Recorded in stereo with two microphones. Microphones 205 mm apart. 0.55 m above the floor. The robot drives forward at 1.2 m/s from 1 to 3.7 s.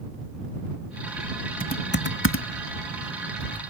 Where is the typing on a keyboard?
40° left (ahead or behind); by 3.7 s 25° left (ahead or behind).